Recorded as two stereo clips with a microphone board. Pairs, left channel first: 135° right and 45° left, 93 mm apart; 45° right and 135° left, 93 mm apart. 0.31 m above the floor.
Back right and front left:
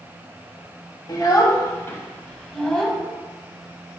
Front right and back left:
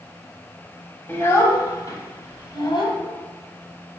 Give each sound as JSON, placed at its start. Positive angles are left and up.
{"t": 1.1, "sound": "a child speaking", "azimuth_deg": -105, "distance_m": 1.3}